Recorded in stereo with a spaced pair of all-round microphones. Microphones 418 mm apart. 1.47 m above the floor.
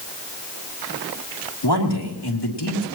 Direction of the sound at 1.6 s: 65° left (ahead or behind).